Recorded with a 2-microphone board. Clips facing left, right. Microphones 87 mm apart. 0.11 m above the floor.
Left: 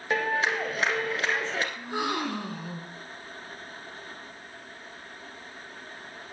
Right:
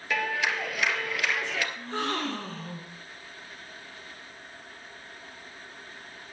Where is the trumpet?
I don't hear a trumpet.